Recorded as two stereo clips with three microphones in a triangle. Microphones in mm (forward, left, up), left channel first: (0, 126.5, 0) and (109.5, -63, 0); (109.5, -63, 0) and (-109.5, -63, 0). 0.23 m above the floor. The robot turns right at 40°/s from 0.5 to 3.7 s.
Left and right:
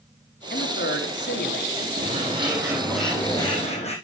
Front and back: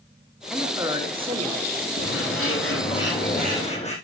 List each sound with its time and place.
0.5 s a man speaking: 95° left, 2.5 m; by 1.9 s 150° left, 2.5 m
2.0 s a bird: 10° right, 5.5 m; by 3.9 s 60° left, 5.5 m